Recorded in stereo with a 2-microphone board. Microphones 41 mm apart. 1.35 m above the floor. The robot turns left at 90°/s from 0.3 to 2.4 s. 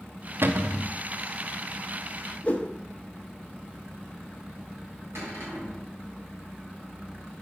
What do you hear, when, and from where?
0.4 s a cupboard door: 110° right, 0.6 m; by 0.9 s 150° right, 0.6 m
2.4 s a whoosh: 35° left (ahead or behind), 0.9 m
5.2 s a cupboard door: 80° right, 4 m